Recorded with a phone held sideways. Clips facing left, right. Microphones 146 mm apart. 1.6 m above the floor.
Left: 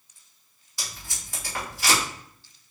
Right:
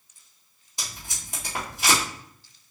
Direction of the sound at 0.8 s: 25° right (ahead or behind).